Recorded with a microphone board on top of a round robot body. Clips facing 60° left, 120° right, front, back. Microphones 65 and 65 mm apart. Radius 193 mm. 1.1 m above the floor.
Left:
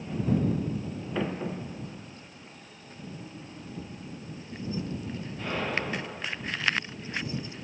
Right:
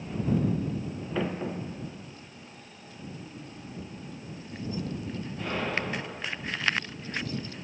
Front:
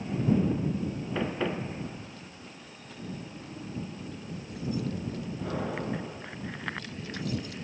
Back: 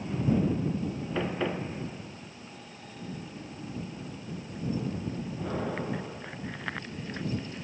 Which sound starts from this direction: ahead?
Keys jangling, at 1.8 s.